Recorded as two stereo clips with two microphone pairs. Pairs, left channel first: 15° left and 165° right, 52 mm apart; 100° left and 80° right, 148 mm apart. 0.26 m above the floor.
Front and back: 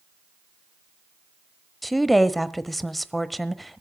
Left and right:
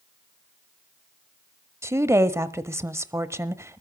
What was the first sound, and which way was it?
A woman speaking, 70° right.